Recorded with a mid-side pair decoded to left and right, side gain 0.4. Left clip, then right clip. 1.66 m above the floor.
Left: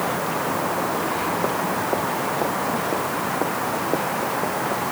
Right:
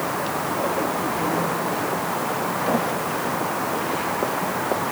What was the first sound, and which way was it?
Only background noise.